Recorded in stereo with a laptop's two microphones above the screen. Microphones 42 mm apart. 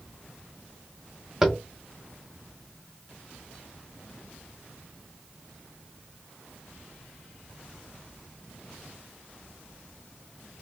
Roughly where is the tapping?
Centre.